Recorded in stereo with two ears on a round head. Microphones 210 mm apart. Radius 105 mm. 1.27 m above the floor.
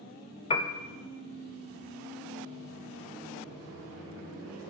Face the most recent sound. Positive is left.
turn(degrees=25)  # may be behind; listen again after turning